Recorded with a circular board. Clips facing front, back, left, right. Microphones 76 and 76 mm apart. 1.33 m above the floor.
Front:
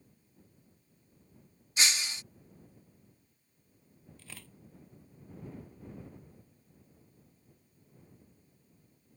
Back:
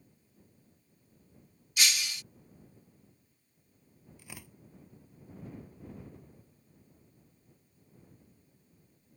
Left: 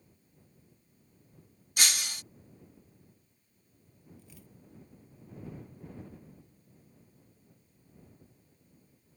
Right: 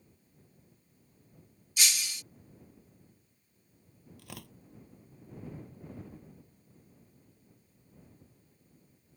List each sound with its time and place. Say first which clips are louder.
1.8 s breaking glass: even, left 2 dB; 60° left
4.2 s tearing paper: back 3 dB, right 7 dB; 105° right